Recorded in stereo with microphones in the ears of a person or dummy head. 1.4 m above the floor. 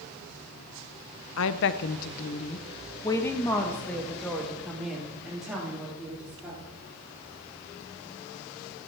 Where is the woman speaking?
75° left (ahead or behind), 1.0 m; by 6.8 s 10° right (ahead or behind), 4 m.